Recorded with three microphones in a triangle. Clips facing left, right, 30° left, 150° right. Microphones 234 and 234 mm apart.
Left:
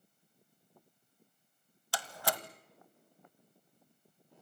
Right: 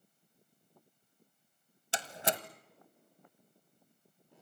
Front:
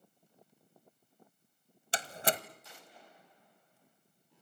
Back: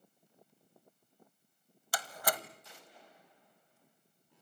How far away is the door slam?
About 1.2 m.